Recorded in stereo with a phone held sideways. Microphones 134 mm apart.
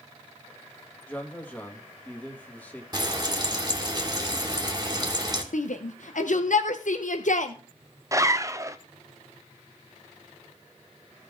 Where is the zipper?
25° right (ahead or behind), 0.6 m.